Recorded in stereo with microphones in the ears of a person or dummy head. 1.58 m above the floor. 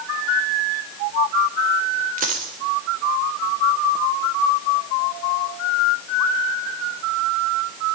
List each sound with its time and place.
2.2 s a dropped coin: 40° right (ahead or behind), 3 m